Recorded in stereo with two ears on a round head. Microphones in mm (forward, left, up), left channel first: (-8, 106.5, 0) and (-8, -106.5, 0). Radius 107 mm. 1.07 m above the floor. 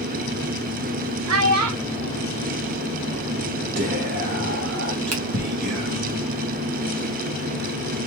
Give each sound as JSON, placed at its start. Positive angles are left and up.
{"t": 1.3, "sound": "a child speaking", "side_deg": -70, "distance_m": 1.2}
{"t": 3.8, "sound": "whispering", "side_deg": -50, "distance_m": 1.4}
{"t": 5.1, "sound": "a finger snap", "side_deg": -75, "distance_m": 1.7}